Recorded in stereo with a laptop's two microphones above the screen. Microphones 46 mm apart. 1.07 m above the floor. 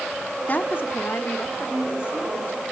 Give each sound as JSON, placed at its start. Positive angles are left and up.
{"t": 0.5, "sound": "a woman speaking", "side_deg": 40, "distance_m": 1.2}